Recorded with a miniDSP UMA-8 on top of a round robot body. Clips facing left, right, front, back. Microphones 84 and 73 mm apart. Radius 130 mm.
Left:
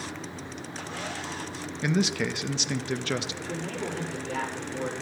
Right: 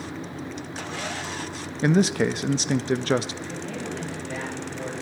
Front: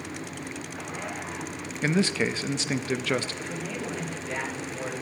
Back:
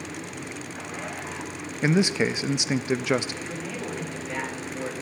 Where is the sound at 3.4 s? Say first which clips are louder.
Even, even; 110° left, 7 m.